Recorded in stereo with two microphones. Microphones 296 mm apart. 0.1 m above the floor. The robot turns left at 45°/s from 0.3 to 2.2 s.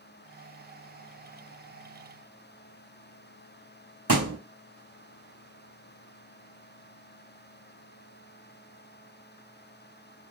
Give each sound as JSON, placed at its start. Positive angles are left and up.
{"t": 4.1, "sound": "a thud", "side_deg": -70, "distance_m": 1.5}